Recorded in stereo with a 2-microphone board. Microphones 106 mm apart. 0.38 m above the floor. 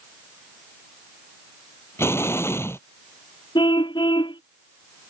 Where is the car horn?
45° left (ahead or behind).